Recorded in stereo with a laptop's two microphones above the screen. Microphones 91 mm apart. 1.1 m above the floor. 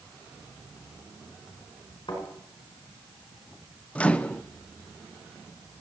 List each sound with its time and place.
2.1 s a thud: 60° left (ahead or behind), 4.5 m
4.0 s a microwave: 15° left (ahead or behind), 0.6 m